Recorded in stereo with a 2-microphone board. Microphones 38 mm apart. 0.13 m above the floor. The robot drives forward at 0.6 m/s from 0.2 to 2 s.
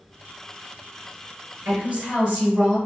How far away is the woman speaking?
About 2.0 m.